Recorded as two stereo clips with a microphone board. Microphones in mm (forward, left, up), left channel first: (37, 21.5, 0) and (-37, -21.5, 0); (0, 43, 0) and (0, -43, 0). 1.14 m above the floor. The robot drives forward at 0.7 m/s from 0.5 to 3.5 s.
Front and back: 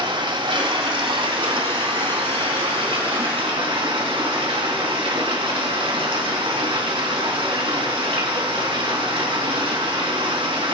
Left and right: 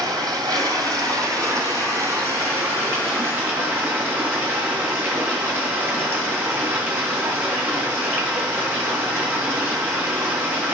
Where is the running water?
135° right, 2.5 m; by 10.7 s 155° right, 4 m.